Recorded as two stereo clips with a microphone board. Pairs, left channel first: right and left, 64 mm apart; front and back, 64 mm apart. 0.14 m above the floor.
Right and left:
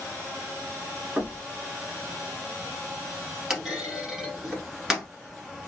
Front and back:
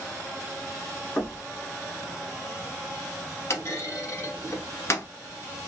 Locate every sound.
1.2 s knocking: 25° left, 1.4 m
3.5 s a clunk: 10° left, 1.1 m